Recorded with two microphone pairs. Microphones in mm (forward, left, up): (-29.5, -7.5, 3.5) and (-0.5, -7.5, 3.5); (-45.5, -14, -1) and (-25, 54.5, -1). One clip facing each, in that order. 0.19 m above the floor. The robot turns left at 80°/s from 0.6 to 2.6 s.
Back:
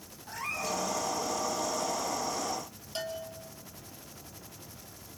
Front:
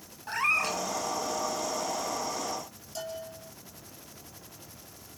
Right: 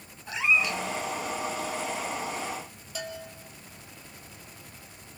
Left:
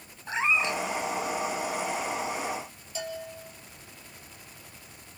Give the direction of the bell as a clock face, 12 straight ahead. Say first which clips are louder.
Back 1 dB, left 2 dB; 5 o'clock.